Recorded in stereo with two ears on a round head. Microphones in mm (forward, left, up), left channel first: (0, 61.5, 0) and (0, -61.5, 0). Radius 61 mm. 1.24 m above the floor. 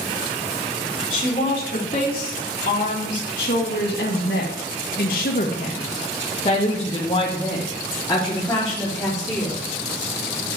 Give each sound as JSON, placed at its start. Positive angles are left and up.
{"t": 1.1, "sound": "a woman speaking", "side_deg": 45, "distance_m": 3.0}